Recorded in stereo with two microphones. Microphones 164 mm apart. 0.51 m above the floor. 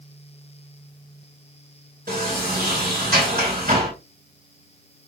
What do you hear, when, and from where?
2.1 s a sliding door: 65° right (ahead or behind), 3.5 m